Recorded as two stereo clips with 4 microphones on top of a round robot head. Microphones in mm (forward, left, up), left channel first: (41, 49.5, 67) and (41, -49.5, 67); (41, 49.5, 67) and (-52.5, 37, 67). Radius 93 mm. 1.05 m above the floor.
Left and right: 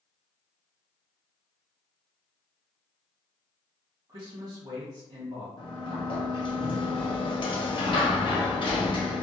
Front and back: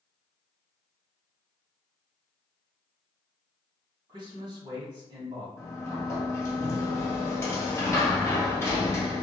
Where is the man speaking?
140° right, 1.2 m.